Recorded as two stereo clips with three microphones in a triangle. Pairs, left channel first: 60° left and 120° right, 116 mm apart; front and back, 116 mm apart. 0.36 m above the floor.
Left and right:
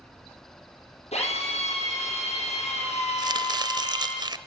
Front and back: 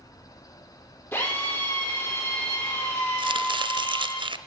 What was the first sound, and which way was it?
A drill, 70° left.